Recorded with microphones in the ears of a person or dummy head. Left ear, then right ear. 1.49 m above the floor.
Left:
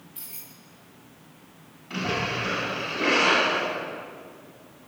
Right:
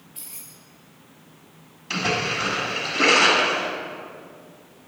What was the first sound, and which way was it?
Keys jangling, 5° left (ahead or behind).